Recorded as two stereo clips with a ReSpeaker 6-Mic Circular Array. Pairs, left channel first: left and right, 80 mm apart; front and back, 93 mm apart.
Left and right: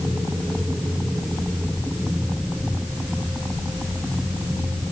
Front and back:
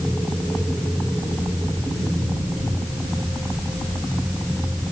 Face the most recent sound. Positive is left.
No sound to turn to.